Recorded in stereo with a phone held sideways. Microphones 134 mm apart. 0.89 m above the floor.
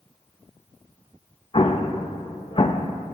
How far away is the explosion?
About 0.6 m.